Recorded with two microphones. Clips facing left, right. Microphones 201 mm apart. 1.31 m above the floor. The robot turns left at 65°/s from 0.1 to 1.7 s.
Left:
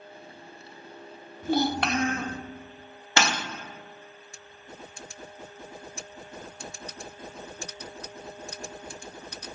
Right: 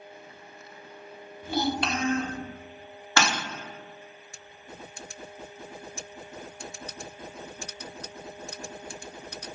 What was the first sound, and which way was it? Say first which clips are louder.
A child speaking: left 3 dB; 45° left (ahead or behind).